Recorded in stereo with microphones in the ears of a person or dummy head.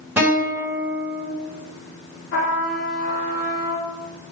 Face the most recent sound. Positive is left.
turn(degrees=70)  # may be behind; listen again after turning